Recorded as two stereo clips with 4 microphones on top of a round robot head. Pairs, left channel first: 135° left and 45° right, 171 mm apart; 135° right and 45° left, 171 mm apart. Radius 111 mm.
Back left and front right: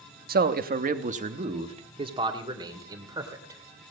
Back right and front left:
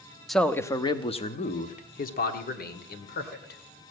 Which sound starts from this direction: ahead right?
A man speaking, at 0.3 s.